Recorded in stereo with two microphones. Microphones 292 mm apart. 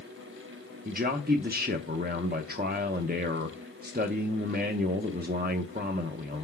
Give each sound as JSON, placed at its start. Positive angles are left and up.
{"t": 0.8, "sound": "a man speaking", "side_deg": -35, "distance_m": 0.6}